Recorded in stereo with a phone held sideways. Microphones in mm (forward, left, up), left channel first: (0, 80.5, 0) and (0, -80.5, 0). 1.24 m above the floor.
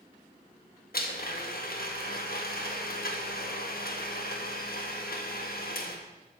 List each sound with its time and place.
0.9 s a blender: 70° left (ahead or behind), 1.4 m